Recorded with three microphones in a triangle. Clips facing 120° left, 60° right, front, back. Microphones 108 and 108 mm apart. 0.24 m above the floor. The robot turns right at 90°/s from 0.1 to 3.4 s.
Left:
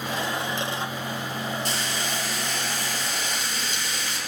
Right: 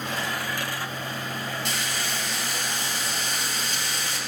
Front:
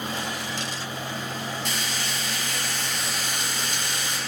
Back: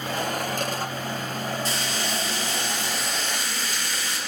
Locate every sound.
1.6 s frying: 145° left, 2.5 m; by 4.2 s 55° right, 2.5 m